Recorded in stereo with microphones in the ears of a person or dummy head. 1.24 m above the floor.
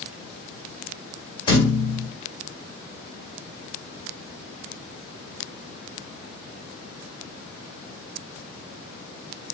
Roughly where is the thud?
Left.